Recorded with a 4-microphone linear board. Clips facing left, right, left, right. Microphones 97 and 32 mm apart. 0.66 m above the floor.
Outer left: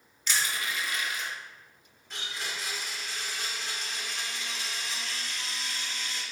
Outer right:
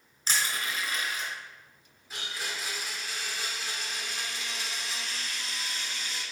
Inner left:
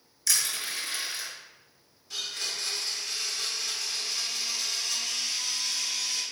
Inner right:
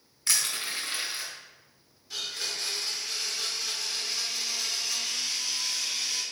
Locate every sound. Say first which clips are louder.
0.3 s crushing: even, even; 35° right (ahead or behind), 2.5 m
2.1 s a blender: even, even; 5° right (ahead or behind), 2.0 m